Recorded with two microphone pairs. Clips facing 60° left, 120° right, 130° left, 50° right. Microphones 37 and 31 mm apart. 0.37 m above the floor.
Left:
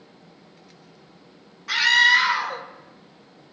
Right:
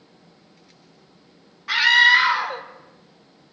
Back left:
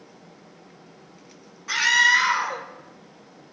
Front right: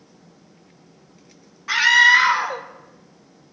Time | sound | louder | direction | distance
1.7 | a scream | right 2 dB, front right 5 dB | 55° right | 1.1 m